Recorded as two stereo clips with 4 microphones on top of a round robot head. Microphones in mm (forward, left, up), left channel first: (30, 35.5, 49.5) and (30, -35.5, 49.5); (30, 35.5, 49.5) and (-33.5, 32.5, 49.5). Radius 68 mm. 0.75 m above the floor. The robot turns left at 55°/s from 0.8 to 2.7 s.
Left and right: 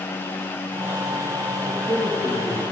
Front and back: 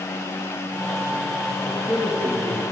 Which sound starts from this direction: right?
A man speaking, at 1.6 s.